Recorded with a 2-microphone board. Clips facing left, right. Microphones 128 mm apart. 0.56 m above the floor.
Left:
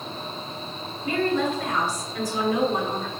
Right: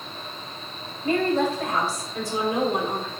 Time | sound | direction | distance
1.0 | a woman speaking | 45° right (ahead or behind) | 3 m